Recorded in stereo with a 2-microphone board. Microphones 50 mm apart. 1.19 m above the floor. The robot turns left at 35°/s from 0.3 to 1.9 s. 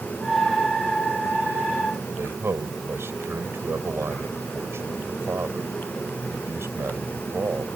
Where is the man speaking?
50° right (ahead or behind).